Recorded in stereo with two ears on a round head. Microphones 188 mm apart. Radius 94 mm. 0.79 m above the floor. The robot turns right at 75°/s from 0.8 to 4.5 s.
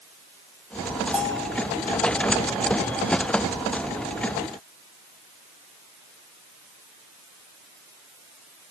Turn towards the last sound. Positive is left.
turn(degrees=-110)